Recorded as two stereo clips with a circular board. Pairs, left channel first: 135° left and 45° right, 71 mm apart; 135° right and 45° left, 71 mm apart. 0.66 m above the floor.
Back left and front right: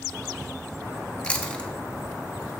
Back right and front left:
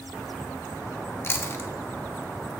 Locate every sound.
1.2 s chewing: 160° right, 0.7 m